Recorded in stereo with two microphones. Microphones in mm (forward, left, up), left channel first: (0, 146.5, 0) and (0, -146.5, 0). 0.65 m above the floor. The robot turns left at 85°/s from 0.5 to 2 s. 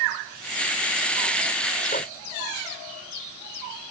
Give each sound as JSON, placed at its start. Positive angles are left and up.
{"t": 1.9, "sound": "a microwave", "side_deg": 35}